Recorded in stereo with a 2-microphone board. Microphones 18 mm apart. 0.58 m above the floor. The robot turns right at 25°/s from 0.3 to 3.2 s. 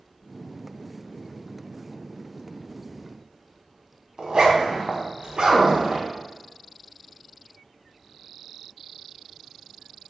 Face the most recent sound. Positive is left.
turn(degrees=-60)  # may be behind; listen again after turning